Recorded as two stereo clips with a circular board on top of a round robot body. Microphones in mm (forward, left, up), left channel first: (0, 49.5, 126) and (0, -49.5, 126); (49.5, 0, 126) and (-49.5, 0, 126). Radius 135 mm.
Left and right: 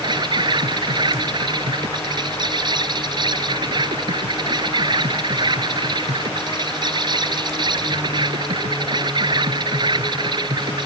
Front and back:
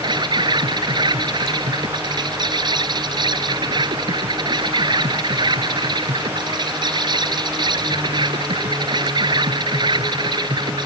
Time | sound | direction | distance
0.0 | an insect | 135° right | ?